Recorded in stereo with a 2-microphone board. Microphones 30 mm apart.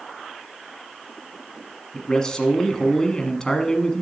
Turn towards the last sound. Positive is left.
turn(degrees=25)  # may be behind; listen again after turning